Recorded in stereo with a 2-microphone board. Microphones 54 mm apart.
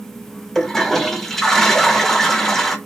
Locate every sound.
0.6 s a toilet flushing: 5° left (ahead or behind), 0.6 m